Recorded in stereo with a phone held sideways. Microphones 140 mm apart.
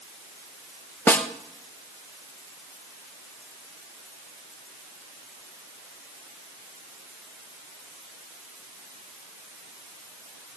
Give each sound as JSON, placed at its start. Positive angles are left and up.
{"t": 1.1, "sound": "a snare drum", "side_deg": 15, "distance_m": 0.7}